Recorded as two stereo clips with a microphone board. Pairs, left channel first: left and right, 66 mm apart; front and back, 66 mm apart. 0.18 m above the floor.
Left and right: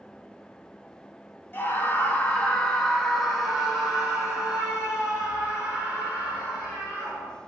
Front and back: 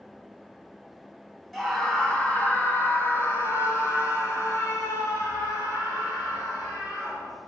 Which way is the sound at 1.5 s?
85° left.